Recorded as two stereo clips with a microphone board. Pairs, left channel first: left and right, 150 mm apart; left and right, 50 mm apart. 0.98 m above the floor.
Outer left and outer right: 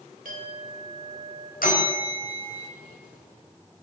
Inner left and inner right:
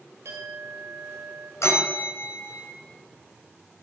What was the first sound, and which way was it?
A clink, 70° right (ahead or behind).